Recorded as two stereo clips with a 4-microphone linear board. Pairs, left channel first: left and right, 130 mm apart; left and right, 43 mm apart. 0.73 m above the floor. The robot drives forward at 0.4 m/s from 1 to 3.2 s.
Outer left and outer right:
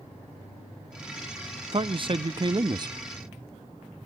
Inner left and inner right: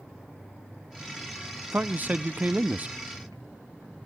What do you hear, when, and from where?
1.7 s a man speaking: 40° right (ahead or behind), 0.5 m; by 3.0 s 30° right (ahead or behind), 0.6 m